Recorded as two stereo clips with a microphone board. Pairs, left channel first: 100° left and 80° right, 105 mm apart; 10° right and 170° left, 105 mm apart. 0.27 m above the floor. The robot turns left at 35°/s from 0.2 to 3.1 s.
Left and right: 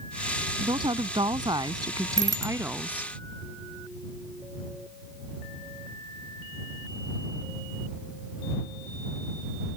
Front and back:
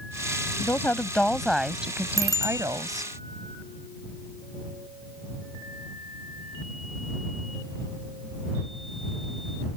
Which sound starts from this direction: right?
A woman speaking, at 0.6 s.